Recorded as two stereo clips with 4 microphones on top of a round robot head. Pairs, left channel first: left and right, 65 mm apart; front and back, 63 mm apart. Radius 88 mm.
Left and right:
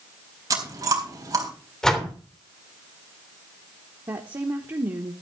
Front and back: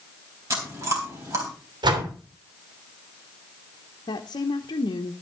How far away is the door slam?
About 3 m.